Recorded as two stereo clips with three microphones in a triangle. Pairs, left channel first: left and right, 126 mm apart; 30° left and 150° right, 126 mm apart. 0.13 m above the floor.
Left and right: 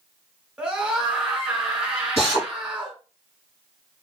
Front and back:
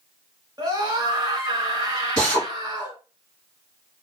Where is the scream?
170° right, 1.4 m.